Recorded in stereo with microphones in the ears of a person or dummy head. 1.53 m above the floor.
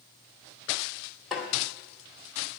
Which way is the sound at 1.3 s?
5° right (ahead or behind).